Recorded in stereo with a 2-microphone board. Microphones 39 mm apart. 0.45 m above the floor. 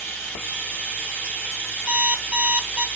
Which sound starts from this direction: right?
An alarm clock, at 1.9 s.